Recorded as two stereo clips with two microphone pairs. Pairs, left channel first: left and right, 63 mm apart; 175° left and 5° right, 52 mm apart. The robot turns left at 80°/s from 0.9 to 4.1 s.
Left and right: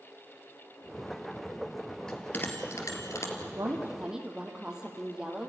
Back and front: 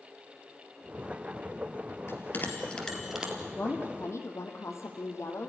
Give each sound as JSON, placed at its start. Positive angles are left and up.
{"t": 2.1, "sound": "a bell", "azimuth_deg": 165, "distance_m": 2.5}
{"t": 3.5, "sound": "a woman speaking", "azimuth_deg": -125, "distance_m": 3.0}